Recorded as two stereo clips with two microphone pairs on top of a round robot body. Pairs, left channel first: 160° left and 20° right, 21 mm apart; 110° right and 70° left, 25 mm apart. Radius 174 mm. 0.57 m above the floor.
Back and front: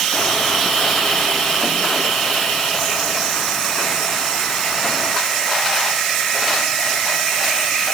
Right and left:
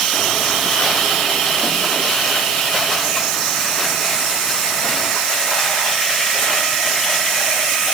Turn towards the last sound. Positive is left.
No sound to turn to.